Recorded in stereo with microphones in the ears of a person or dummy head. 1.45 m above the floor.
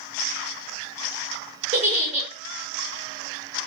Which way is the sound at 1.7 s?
35° right (ahead or behind).